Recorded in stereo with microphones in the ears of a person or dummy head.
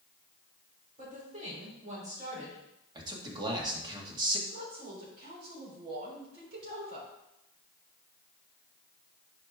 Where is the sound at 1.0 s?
35° right (ahead or behind), 3.5 m.